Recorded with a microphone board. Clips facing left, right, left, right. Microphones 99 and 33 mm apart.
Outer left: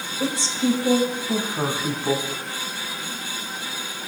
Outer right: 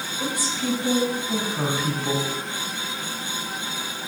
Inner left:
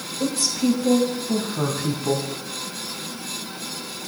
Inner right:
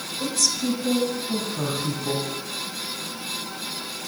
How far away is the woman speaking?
About 2 m.